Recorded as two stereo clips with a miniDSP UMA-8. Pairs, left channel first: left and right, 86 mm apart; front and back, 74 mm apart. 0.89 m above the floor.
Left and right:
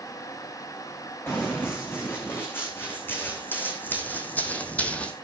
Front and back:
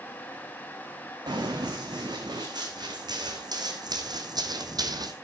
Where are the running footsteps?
155° left, 4 m; by 5.1 s 165° left, 1.6 m.